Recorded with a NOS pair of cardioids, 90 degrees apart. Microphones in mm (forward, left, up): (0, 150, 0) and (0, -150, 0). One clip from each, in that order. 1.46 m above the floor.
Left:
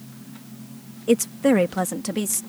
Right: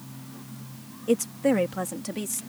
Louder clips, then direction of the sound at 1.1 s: Left 4 dB; 35° left.